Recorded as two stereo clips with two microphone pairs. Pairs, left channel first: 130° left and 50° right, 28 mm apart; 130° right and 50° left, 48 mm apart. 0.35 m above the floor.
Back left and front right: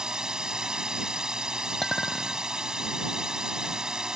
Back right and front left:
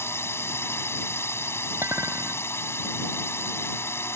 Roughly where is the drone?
Behind right.